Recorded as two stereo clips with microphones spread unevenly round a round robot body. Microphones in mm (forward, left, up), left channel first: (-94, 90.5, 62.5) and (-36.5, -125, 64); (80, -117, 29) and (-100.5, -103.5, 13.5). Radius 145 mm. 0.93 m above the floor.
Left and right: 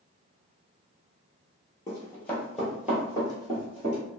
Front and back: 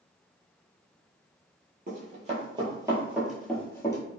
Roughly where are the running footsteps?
Behind.